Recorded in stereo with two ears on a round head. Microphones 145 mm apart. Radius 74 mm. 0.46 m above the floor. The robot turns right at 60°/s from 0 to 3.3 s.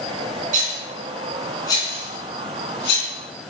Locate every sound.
0.5 s a rattle: 45° right (ahead or behind), 3.5 m; by 3.1 s 70° left (ahead or behind), 3.5 m